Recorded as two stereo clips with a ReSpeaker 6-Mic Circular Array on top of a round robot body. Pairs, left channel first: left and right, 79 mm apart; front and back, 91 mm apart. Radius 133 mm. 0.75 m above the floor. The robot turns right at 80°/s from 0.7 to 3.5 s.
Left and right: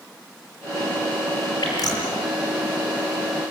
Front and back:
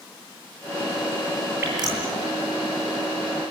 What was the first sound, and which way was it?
Dripping, 115° left.